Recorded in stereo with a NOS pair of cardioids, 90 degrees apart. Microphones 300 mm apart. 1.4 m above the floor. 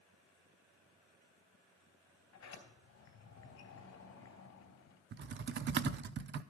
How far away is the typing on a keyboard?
About 0.7 m.